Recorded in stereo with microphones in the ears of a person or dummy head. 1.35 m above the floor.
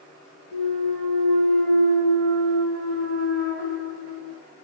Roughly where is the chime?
I don't hear a chime.